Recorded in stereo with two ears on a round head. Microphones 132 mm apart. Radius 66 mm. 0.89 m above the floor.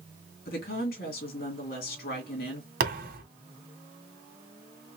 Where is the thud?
65° right (ahead or behind), 1.8 m.